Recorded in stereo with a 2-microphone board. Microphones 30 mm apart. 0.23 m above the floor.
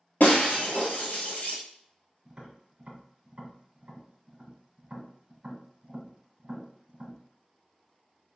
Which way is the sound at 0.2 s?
80° left.